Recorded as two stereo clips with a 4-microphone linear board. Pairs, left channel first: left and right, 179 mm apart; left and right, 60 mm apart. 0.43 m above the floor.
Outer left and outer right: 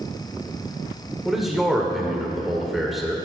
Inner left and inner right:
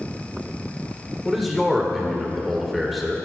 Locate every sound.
1.2 s a man speaking: centre (ahead or behind), 1.6 m